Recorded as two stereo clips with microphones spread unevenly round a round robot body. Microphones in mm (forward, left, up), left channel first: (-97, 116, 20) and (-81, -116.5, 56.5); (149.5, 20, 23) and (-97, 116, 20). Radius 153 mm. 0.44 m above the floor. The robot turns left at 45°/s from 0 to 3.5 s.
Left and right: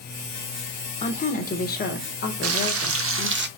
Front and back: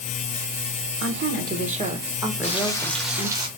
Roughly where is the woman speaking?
Behind left.